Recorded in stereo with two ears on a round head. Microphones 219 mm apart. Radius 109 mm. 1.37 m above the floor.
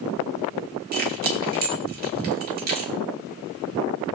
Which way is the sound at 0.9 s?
40° right (ahead or behind).